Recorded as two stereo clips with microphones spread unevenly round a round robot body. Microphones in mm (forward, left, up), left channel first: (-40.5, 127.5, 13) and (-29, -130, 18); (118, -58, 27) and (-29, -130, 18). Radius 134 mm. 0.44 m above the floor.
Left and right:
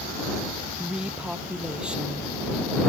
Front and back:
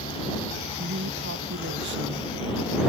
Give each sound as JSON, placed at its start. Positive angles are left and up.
{"t": 0.8, "sound": "a woman speaking", "azimuth_deg": -175}